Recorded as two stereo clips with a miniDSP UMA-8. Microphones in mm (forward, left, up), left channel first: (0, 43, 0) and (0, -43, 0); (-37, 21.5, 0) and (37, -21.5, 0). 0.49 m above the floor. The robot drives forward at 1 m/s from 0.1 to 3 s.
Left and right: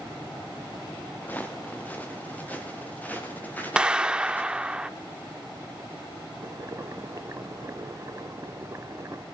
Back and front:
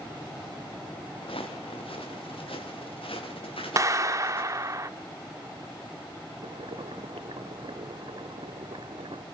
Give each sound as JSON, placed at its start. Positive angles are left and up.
{"t": 1.2, "sound": "footsteps", "azimuth_deg": 165, "distance_m": 3.5}
{"t": 3.8, "sound": "a clap", "azimuth_deg": -15, "distance_m": 0.8}
{"t": 6.4, "sound": "boiling", "azimuth_deg": -35, "distance_m": 0.8}